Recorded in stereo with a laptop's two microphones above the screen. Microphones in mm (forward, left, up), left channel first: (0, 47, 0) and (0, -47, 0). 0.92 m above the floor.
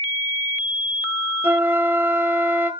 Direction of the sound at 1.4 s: 20° right (ahead or behind).